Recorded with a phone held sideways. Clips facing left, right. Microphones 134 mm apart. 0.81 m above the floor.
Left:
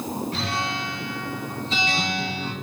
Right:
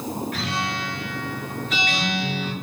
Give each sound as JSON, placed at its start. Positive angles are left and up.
{"t": 0.3, "sound": "a guitar", "side_deg": 30, "distance_m": 6.0}